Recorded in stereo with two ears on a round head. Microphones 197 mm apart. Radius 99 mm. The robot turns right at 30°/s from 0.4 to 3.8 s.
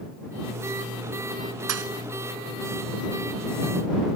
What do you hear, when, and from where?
1.7 s a thud: 70° right (ahead or behind); by 1.9 s 65° right (ahead or behind)